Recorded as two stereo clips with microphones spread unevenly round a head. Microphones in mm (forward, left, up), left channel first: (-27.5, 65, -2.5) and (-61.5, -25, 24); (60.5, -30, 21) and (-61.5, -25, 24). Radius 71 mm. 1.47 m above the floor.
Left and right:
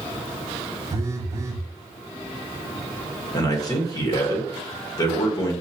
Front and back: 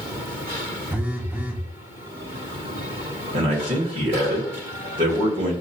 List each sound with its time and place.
0.9 s a phone buzzing: 110° right, 0.6 m
3.3 s a man speaking: 120° left, 1.3 m